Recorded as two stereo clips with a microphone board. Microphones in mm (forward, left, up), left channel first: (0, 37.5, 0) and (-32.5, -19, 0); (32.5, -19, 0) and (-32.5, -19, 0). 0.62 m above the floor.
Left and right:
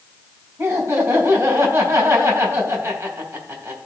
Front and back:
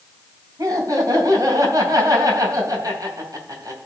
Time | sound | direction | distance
0.6 | laughter | 165° right | 3.5 m